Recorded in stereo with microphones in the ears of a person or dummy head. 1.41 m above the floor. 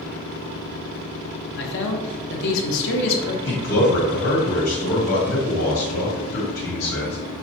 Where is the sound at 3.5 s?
80° left, 1.7 m.